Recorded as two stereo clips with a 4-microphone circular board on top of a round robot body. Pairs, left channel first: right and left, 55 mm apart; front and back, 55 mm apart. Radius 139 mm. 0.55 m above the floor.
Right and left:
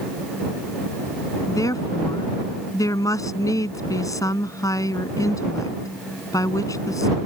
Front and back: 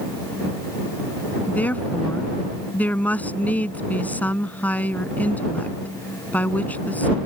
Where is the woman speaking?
65° right.